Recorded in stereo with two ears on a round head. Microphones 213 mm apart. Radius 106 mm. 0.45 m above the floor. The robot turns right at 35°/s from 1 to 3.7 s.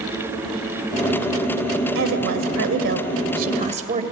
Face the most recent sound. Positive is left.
turn(degrees=-35)